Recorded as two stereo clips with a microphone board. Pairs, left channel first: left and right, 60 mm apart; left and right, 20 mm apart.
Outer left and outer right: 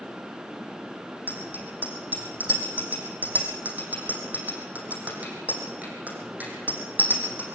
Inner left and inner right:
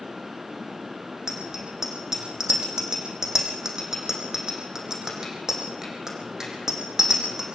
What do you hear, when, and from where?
1.3 s a bicycle bell: 25° right (ahead or behind), 7 m